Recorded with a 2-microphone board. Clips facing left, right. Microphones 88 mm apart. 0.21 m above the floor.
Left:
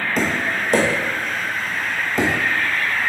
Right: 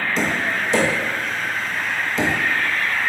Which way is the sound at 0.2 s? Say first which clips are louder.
Left 2 dB; 50° left (ahead or behind).